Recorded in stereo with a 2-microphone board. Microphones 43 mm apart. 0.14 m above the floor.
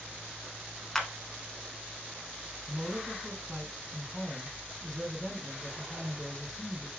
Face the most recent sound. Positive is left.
turn(degrees=5)  # may be behind; listen again after turning